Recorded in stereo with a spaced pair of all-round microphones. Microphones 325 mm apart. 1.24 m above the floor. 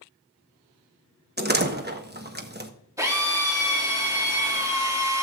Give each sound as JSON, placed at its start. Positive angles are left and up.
{"t": 1.4, "sound": "a door slam", "side_deg": -30, "distance_m": 1.0}
{"t": 3.0, "sound": "a drill", "side_deg": -10, "distance_m": 3.0}